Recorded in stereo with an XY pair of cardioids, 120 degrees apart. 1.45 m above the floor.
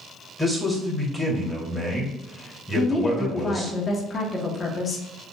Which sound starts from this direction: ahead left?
A woman speaking, at 2.8 s.